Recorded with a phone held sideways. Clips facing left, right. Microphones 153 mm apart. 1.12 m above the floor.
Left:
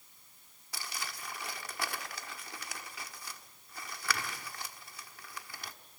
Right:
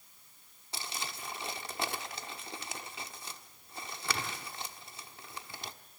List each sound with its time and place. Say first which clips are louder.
0.7 s crumpling: right 2 dB; 25° right (ahead or behind), 1.3 m